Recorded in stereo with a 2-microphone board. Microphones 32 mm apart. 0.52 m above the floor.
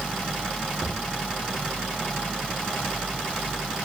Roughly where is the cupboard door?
Right.